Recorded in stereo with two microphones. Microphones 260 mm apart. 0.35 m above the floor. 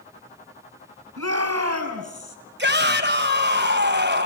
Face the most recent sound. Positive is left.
turn(degrees=-45)  # may be behind; listen again after turning